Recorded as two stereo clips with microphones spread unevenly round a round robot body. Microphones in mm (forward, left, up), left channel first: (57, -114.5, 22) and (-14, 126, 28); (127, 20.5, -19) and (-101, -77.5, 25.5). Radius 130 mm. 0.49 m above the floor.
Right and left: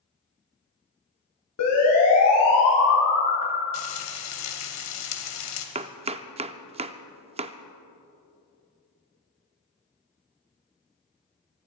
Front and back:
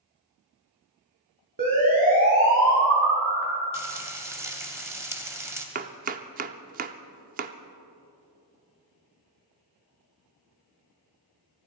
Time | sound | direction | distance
1.6 | a siren | 95° right | 5.5 m
3.7 | frying | 75° right | 1.9 m
5.8 | chopping | 155° left | 0.6 m